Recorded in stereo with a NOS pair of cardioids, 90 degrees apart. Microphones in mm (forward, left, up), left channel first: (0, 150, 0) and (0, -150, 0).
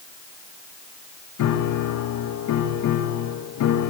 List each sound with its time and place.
1.4 s a piano: 70° left, 2.5 m